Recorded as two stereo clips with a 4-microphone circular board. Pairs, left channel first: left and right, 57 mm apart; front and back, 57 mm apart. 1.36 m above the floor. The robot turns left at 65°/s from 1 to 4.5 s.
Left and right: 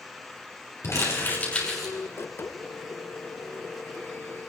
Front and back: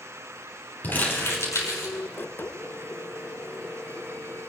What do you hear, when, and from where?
0.8 s crumpling: 60° left, 5.5 m; by 1.9 s 5° right, 5.5 m